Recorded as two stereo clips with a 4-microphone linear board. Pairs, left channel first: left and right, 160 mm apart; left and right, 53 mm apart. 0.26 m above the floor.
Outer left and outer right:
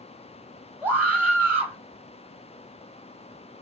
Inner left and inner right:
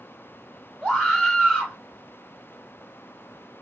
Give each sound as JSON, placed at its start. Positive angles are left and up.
{"t": 0.8, "sound": "a scream", "side_deg": -10, "distance_m": 1.7}